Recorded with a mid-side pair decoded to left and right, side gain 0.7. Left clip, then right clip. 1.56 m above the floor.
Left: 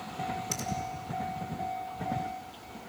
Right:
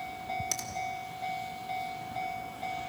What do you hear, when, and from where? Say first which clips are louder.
0.5 s a finger snap: even; 30° right, 3.5 m